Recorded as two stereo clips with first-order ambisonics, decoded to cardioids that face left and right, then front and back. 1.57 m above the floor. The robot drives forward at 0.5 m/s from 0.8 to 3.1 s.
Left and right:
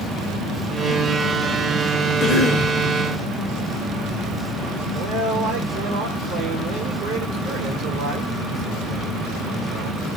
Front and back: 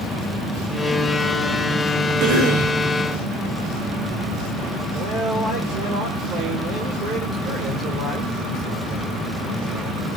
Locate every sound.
2.2 s a cough: 150° left, 1.3 m; by 2.8 s 155° left, 1.5 m
4.9 s a man speaking: 130° right, 2.0 m